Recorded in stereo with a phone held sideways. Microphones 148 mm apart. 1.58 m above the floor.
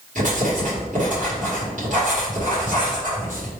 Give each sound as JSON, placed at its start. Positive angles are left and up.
{"t": 0.1, "sound": "writing", "side_deg": -60, "distance_m": 2.0}